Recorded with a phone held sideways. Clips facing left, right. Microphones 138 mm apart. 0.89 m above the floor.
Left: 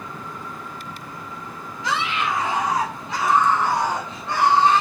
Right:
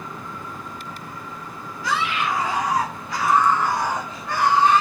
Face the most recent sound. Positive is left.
turn(degrees=30)  # may be behind; listen again after turning